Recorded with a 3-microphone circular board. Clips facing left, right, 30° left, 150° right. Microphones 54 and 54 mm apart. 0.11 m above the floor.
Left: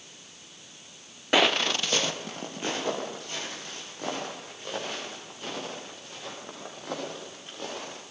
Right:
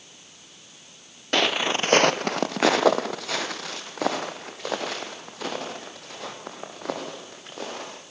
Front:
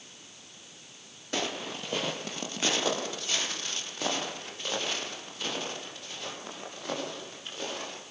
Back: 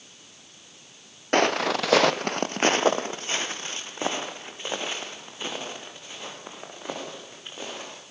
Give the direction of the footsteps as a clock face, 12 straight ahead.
6 o'clock.